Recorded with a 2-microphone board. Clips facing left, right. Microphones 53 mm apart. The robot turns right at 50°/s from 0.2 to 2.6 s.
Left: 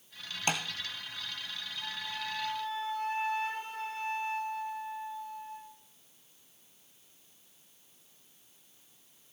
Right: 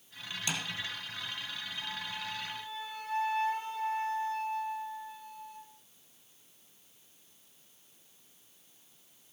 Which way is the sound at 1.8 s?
80° left.